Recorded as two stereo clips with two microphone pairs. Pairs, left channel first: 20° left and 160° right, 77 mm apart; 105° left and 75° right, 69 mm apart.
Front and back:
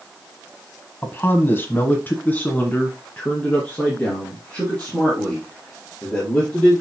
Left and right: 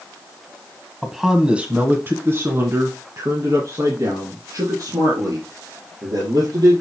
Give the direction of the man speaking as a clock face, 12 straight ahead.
12 o'clock.